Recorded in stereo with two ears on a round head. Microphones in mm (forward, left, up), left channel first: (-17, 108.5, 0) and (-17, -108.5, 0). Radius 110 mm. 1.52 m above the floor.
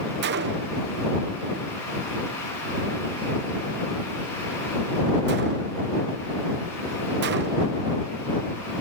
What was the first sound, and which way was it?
A gunshot, 45° right (ahead or behind).